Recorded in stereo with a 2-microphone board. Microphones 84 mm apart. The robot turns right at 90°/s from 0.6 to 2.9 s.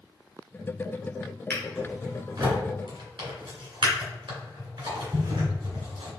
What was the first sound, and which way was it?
A drawer, 30° left (ahead or behind).